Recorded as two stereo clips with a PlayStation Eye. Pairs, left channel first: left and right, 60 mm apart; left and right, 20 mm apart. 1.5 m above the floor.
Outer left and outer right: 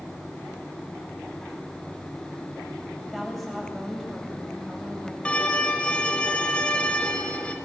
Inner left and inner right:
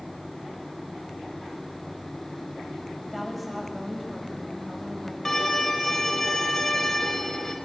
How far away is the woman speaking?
About 8 m.